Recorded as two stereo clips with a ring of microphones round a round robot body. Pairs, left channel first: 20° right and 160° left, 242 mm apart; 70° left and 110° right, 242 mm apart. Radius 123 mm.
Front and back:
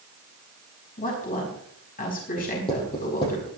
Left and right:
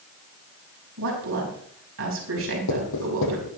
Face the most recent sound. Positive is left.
turn(degrees=50)